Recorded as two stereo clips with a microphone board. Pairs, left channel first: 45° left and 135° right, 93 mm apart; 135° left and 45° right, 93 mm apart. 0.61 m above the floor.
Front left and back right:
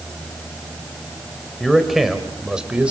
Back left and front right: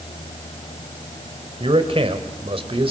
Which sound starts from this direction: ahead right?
A man speaking, at 1.6 s.